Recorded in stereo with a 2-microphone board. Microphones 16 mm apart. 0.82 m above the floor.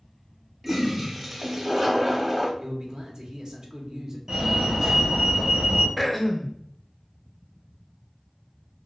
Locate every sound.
0.6 s a toilet flushing: 15° right (ahead or behind), 0.7 m
2.6 s a man speaking: 45° right (ahead or behind), 0.7 m
4.3 s a fire alarm: 20° right (ahead or behind), 1.4 m
6.0 s throat clearing: centre (ahead or behind), 0.5 m